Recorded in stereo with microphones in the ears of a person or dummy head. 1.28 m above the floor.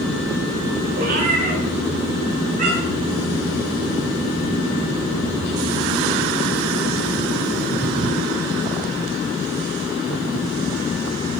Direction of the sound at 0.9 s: 50° right (ahead or behind).